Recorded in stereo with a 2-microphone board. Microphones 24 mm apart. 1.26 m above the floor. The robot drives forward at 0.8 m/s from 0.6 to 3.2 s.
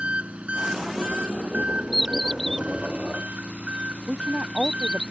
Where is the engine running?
65° right (ahead or behind); by 5.1 s 80° right.